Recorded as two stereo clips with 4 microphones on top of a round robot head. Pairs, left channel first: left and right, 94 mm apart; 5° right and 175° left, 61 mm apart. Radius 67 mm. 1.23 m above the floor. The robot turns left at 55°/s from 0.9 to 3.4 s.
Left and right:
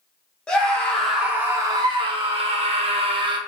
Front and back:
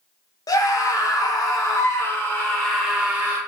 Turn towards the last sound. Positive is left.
turn(degrees=-130)